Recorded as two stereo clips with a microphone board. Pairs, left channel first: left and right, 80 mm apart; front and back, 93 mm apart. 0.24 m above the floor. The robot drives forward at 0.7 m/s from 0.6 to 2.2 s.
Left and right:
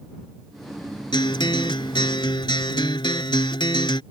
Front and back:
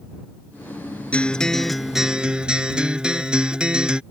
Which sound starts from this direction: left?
A guitar, at 1.1 s.